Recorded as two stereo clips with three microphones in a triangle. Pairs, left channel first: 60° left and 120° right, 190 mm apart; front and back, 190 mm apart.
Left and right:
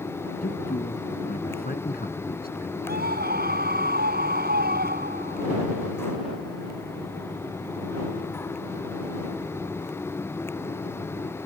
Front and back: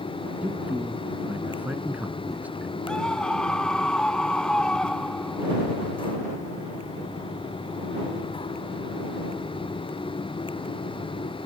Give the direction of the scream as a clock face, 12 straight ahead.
3 o'clock.